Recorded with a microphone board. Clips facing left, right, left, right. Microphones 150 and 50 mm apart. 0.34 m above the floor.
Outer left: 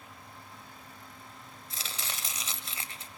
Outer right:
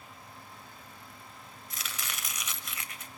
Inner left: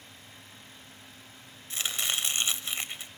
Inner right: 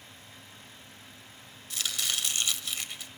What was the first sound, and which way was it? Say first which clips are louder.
Chopping: even, inner left 1 dB; 30° left (ahead or behind).